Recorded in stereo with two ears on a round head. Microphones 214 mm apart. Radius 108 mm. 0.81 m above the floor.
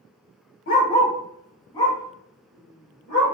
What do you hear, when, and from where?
0.7 s a dog barking: 35° left (ahead or behind), 0.7 m; by 3.4 s 10° left (ahead or behind), 3 m